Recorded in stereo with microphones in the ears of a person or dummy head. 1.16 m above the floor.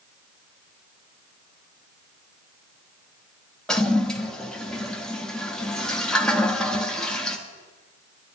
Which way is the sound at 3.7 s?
5° left (ahead or behind).